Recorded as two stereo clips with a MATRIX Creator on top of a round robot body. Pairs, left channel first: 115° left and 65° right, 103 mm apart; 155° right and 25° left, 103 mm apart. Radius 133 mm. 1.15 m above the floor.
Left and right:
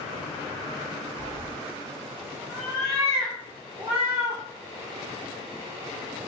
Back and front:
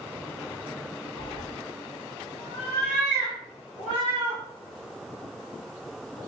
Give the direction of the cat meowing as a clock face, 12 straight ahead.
7 o'clock.